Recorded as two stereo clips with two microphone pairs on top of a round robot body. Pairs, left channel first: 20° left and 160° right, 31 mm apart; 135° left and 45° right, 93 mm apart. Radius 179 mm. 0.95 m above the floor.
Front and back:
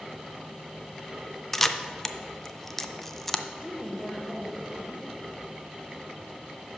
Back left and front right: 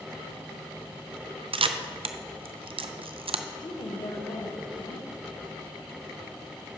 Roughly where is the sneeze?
No sneeze in this recording.